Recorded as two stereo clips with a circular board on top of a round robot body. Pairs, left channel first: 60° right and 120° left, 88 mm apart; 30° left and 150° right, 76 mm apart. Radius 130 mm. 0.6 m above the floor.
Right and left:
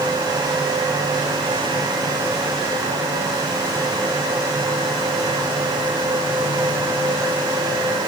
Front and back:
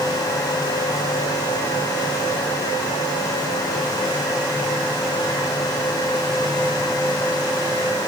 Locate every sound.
Only background noise.